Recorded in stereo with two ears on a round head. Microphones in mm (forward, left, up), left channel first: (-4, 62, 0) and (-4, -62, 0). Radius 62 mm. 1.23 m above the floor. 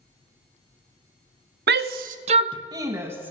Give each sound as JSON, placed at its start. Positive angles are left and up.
{"t": 1.7, "sound": "a shout", "side_deg": -80, "distance_m": 0.6}